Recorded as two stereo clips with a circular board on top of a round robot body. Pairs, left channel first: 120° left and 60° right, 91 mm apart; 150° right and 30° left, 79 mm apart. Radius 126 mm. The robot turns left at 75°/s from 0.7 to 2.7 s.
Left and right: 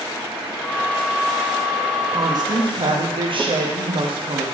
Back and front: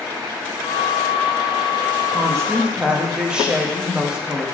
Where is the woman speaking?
5° right, 1.3 m; by 4.5 s 45° right, 1.3 m.